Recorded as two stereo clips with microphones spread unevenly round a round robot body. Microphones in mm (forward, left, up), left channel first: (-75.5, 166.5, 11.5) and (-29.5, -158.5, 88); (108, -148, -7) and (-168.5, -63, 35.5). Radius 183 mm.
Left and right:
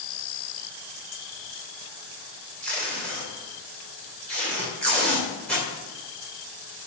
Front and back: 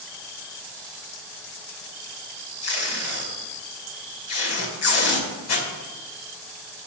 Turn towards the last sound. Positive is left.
turn(degrees=15)